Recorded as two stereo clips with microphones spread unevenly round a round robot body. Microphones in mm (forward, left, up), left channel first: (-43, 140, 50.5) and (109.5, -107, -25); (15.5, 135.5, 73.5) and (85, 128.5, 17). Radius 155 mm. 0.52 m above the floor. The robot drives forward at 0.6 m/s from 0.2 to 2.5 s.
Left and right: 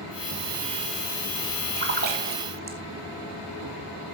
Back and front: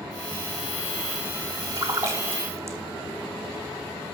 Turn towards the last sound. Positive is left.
turn(degrees=-10)